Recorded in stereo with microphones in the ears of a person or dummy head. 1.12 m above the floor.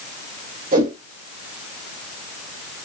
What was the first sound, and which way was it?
A whoosh, 50° right (ahead or behind).